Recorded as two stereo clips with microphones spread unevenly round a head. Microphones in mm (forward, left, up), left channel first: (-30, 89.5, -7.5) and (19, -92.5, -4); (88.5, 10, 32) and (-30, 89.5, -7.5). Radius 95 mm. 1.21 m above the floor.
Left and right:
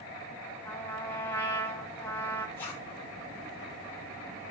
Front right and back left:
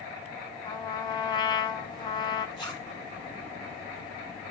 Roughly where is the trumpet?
Ahead left.